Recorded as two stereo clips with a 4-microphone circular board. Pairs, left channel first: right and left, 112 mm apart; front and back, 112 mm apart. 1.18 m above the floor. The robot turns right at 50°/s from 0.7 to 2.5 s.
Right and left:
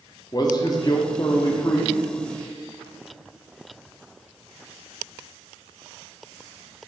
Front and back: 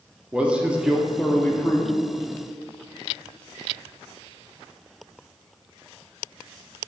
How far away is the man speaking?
About 0.6 m.